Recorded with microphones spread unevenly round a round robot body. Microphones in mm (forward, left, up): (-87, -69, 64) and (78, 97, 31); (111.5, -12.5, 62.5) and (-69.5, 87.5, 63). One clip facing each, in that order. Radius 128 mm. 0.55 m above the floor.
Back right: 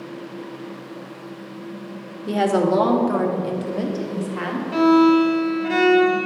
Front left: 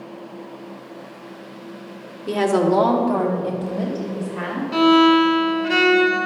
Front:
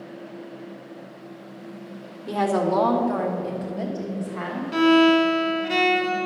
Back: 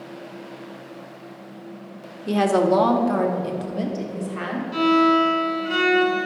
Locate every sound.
2.3 s a woman speaking: 115° left, 1.2 m; by 4.6 s 160° right, 1.8 m
4.7 s a violin: 30° right, 1.1 m